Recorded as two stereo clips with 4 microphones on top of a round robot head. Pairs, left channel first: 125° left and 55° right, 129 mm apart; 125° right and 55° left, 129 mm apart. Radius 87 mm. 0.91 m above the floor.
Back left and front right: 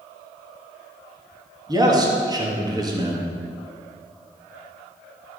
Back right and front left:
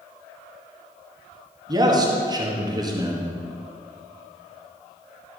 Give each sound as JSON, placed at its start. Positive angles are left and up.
{"t": 1.7, "sound": "a man speaking", "azimuth_deg": 0, "distance_m": 1.7}